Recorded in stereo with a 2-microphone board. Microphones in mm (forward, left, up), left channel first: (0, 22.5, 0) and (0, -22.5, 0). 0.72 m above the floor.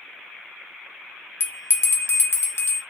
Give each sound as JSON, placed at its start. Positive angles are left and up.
{"t": 1.4, "sound": "a bell", "side_deg": 65, "distance_m": 0.7}